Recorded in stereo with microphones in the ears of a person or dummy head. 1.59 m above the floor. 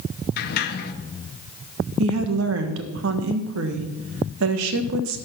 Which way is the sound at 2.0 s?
80° right.